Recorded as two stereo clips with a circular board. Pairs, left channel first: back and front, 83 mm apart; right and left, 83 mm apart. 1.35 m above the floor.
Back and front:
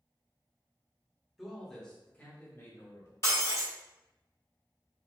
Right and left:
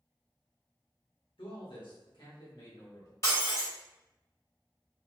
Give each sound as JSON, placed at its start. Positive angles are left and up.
{"t": 1.4, "sound": "a man speaking", "azimuth_deg": -90, "distance_m": 1.3}
{"t": 3.2, "sound": "breaking glass", "azimuth_deg": -135, "distance_m": 1.5}